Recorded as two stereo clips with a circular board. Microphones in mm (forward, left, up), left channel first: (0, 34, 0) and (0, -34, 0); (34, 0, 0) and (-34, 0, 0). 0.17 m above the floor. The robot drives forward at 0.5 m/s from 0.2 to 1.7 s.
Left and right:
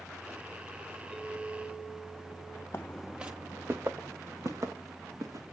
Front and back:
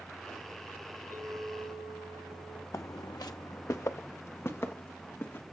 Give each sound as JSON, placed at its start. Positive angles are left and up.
{"t": 1.1, "sound": "a clink", "azimuth_deg": -175, "distance_m": 5.5}
{"t": 2.7, "sound": "footsteps", "azimuth_deg": 40, "distance_m": 0.5}